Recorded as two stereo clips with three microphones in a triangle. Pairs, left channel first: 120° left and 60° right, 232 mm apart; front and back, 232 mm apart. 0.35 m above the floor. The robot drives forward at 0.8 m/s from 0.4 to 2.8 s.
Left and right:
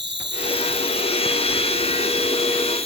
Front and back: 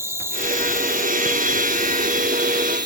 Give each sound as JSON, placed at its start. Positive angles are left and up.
{"t": 0.0, "sound": "an insect", "azimuth_deg": -100}